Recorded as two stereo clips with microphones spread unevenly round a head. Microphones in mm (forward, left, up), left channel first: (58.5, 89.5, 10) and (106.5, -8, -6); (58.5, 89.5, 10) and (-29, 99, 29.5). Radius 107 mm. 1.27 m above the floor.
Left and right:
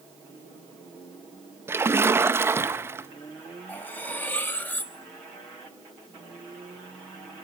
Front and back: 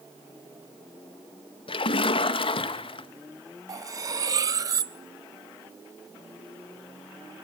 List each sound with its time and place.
1.7 s a splash: 5° left, 1.8 m
3.7 s cutlery clinking: straight behind, 0.8 m